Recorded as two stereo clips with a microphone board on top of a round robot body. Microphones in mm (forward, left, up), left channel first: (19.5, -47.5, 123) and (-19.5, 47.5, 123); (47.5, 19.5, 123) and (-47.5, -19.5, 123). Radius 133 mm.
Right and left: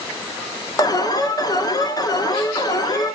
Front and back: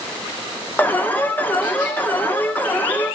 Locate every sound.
0.8 s an alarm: 40° right, 1.2 m